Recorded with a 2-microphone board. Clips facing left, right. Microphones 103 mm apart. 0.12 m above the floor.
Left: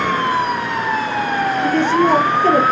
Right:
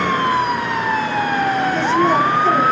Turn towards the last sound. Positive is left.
turn(degrees=55)  # may be behind; listen again after turning